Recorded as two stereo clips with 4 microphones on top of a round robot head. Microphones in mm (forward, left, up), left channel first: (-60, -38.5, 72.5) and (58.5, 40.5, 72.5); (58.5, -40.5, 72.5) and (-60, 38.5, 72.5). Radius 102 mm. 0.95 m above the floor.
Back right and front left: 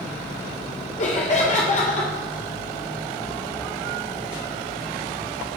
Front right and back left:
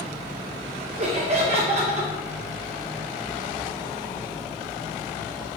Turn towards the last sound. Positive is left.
turn(degrees=-175)